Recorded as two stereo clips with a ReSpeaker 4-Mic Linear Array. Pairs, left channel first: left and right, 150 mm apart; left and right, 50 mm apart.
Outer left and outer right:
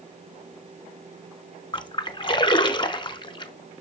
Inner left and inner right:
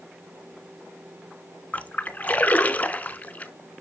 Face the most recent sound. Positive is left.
turn(degrees=35)  # may be behind; listen again after turning